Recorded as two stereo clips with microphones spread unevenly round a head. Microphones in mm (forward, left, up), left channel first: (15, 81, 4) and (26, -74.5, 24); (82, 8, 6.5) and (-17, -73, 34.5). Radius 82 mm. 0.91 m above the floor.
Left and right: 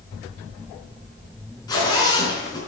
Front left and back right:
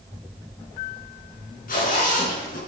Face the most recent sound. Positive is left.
turn(degrees=25)